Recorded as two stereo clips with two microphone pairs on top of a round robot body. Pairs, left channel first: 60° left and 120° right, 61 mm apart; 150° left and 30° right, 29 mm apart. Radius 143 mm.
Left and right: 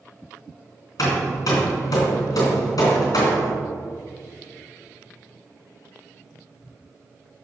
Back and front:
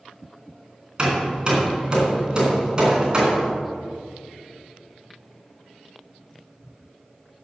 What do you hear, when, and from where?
1.0 s hammering: 30° left, 3 m